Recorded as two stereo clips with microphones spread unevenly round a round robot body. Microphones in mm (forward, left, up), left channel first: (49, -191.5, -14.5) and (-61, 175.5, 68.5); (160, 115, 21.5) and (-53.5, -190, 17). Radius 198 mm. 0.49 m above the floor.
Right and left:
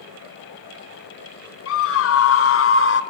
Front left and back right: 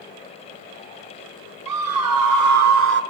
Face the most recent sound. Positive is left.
turn(degrees=-80)